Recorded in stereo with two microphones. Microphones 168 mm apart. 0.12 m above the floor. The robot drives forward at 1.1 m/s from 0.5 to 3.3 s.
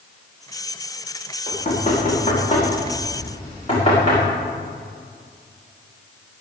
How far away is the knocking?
About 5.5 m.